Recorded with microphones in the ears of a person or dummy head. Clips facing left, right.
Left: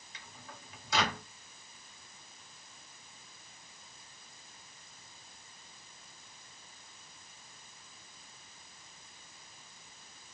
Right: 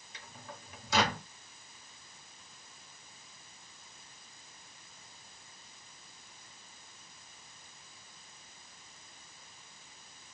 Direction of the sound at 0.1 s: 85° right.